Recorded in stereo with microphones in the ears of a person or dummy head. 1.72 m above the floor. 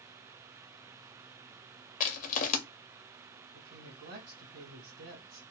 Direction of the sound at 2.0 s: 40° left (ahead or behind).